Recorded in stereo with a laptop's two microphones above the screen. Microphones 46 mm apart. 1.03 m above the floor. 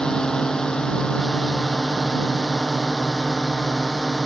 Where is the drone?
15° left (ahead or behind).